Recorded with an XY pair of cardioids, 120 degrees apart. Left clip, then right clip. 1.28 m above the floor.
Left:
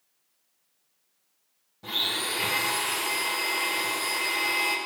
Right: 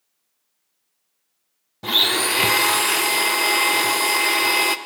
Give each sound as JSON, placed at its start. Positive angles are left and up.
{"t": 1.8, "sound": "a blender", "azimuth_deg": -65, "distance_m": 0.5}